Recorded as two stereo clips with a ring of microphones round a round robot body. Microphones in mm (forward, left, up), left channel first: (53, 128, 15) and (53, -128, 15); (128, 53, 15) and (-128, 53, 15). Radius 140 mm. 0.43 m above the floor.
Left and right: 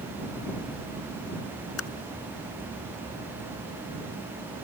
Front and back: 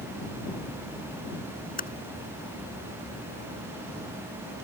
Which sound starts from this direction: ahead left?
Typing on a keyboard, at 1.8 s.